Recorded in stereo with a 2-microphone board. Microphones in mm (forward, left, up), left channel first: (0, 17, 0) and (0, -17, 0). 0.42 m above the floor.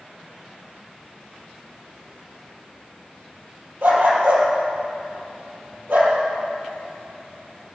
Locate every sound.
3.8 s a dog barking: 75° right (ahead or behind), 3.5 m